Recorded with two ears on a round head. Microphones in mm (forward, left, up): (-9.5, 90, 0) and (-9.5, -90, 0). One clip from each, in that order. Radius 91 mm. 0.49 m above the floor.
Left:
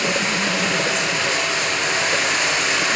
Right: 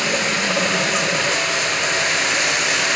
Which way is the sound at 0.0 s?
10° right (ahead or behind).